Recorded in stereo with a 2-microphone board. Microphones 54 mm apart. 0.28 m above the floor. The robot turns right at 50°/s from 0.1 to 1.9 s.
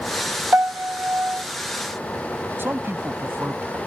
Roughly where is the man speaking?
Right.